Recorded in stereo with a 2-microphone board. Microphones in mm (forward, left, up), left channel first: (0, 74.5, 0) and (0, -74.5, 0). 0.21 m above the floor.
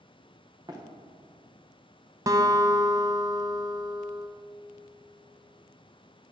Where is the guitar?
25° right (ahead or behind), 0.6 m.